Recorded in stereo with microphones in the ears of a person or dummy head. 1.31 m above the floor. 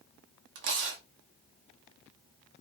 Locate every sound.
0.6 s tearing paper: 55° right (ahead or behind), 0.6 m